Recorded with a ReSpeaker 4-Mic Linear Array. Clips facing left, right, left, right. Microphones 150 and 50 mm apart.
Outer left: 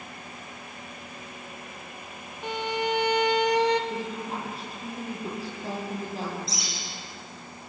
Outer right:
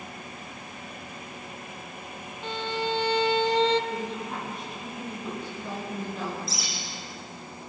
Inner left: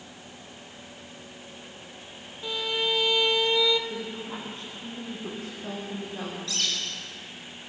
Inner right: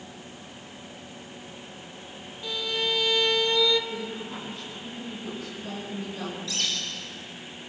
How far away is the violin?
About 1.3 m.